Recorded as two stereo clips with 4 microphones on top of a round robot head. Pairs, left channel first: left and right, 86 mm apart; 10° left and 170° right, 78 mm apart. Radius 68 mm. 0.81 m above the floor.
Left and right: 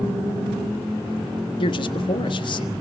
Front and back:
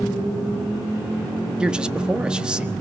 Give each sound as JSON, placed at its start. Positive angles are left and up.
{"t": 1.6, "sound": "a man speaking", "azimuth_deg": 110, "distance_m": 1.4}